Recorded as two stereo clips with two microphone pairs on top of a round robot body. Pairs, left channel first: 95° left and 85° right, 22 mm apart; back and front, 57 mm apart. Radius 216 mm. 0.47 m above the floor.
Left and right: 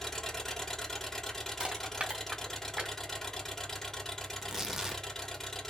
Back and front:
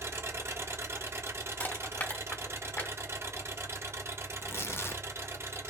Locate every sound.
0.0 s an engine running: 35° left, 1.8 m
1.6 s crushing: 120° right, 1.0 m
4.3 s tearing paper: 155° right, 1.0 m